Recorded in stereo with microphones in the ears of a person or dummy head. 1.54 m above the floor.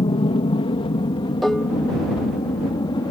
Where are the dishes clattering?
Centre (ahead or behind).